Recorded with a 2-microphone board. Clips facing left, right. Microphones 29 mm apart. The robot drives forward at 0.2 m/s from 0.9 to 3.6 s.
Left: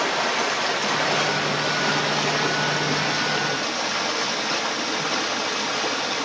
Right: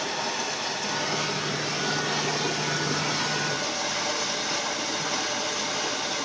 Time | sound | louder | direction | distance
0.0 | running water | left 7 dB | 80° left | 0.7 m